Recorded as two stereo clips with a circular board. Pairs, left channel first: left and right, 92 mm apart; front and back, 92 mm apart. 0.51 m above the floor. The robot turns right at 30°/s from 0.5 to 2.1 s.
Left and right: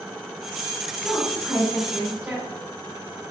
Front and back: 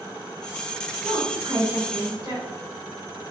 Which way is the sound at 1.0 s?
165° left.